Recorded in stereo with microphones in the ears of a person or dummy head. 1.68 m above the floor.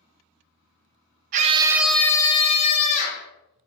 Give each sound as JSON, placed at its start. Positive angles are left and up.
{"t": 1.3, "sound": "a scream", "side_deg": -45, "distance_m": 0.5}